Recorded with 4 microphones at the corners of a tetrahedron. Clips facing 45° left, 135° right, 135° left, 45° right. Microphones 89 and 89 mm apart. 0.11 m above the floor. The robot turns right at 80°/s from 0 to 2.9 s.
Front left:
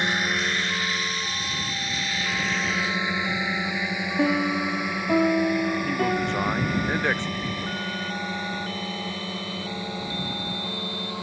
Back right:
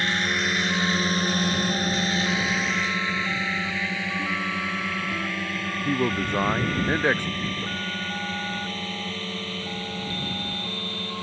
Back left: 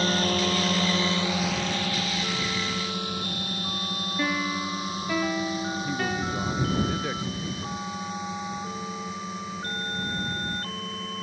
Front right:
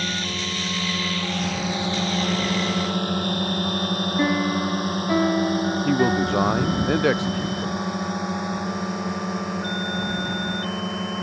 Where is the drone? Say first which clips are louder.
Even, back left 4 dB; 105° left; by 11.2 s 30° right.